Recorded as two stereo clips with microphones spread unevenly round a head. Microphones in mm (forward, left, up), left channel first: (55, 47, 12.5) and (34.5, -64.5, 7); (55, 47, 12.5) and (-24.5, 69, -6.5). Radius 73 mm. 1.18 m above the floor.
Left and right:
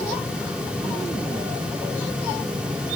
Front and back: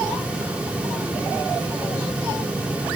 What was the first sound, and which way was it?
Only background noise.